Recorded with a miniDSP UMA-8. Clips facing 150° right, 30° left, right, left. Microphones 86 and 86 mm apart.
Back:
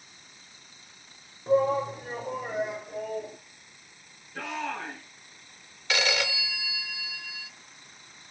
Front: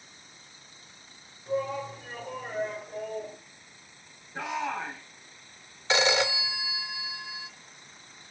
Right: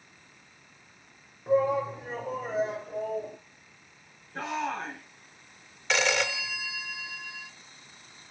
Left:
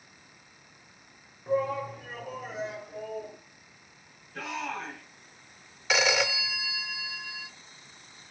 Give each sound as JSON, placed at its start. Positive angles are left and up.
{"t": 1.5, "sound": "a shout", "azimuth_deg": -160, "distance_m": 1.3}
{"t": 4.3, "sound": "a shout", "azimuth_deg": -30, "distance_m": 2.5}
{"t": 5.9, "sound": "a phone ringing", "azimuth_deg": 10, "distance_m": 0.6}